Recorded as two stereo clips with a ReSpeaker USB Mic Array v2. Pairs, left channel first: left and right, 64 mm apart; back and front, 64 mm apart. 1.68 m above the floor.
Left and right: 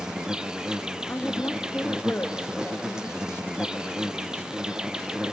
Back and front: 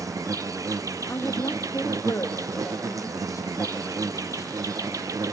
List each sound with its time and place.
0.0 s an insect: 15° right, 0.7 m
1.1 s a woman speaking: 145° left, 2 m